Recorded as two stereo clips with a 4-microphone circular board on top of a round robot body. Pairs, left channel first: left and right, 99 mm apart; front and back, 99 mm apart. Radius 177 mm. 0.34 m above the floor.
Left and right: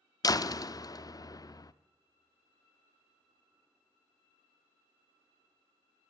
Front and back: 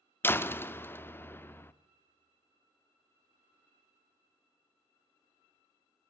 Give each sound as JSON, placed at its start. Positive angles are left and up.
{"t": 0.2, "sound": "a door slam", "azimuth_deg": 60, "distance_m": 0.7}